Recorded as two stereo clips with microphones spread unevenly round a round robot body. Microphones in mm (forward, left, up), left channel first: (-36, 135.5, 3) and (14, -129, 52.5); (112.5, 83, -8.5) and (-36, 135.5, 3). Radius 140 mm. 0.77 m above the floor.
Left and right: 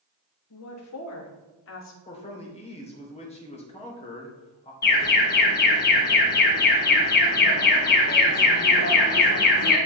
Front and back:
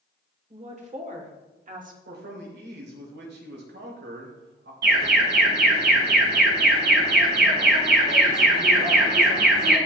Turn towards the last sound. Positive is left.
turn(degrees=155)